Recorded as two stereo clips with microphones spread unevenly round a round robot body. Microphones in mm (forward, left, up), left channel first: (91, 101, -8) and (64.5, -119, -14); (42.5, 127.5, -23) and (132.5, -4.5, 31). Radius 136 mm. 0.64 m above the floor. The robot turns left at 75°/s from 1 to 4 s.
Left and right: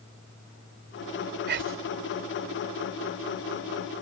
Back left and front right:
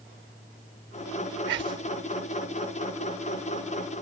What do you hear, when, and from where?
1.5 s whispering: 60° right; by 1.9 s 90° right